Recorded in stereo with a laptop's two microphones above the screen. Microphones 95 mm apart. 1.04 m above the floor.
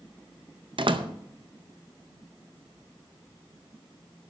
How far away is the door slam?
About 0.6 m.